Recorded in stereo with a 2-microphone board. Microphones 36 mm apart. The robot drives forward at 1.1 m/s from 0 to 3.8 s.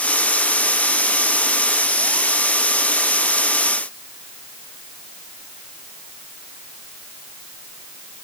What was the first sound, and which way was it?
Only background noise.